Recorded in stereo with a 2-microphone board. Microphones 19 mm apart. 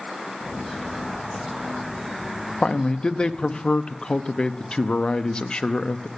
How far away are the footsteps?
About 2.5 m.